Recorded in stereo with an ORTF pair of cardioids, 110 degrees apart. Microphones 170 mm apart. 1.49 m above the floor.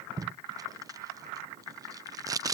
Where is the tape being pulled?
20° right.